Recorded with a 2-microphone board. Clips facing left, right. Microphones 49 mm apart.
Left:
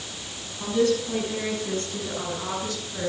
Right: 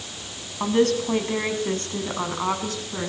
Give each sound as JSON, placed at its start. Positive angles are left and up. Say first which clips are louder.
{"t": 0.6, "sound": "a woman speaking", "louder": "right 2 dB", "side_deg": -50, "distance_m": 5.5}